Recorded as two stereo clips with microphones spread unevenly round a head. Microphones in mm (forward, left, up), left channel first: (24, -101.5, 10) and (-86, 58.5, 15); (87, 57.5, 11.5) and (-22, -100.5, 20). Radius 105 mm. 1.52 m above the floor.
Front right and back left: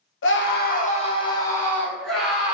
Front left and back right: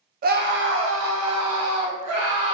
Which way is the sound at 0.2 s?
80° right.